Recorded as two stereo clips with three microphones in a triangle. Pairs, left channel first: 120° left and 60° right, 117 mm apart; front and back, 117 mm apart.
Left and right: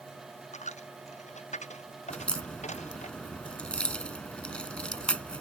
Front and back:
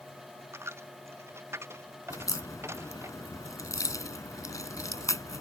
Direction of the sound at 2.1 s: 45° left.